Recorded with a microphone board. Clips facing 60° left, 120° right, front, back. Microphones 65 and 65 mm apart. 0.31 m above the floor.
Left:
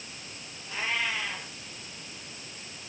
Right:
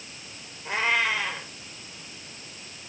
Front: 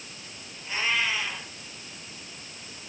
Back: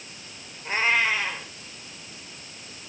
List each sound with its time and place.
0.7 s a cat meowing: 130° right, 4 m